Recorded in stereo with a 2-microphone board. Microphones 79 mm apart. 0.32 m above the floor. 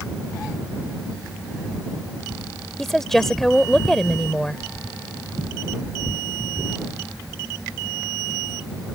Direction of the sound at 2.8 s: 5° left (ahead or behind).